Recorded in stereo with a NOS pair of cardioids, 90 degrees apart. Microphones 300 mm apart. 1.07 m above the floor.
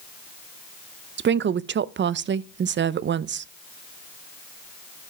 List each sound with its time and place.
1.2 s a woman speaking: 35° right, 0.5 m